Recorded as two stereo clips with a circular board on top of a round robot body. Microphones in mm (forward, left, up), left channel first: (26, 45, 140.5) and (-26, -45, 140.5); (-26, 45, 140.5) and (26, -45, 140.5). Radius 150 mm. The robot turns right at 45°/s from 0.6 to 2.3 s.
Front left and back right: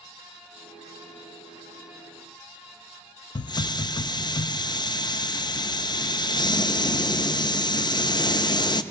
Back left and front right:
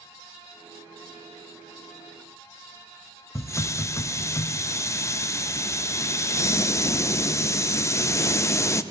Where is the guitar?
I don't hear a guitar.